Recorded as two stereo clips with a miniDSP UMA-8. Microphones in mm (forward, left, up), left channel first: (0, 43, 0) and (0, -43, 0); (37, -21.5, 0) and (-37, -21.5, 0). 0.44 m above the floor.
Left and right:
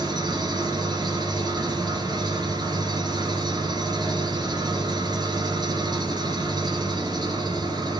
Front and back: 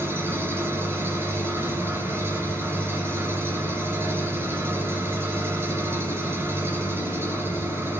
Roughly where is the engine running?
Behind right.